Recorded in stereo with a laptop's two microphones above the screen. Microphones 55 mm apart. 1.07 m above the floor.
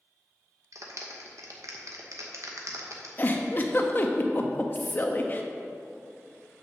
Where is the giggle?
35° left (ahead or behind), 0.7 m.